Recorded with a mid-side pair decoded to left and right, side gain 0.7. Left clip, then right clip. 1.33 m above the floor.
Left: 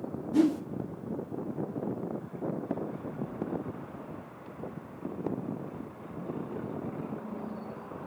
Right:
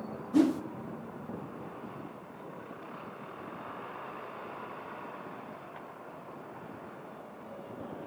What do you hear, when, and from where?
0.3 s a whoosh: 5° right, 0.8 m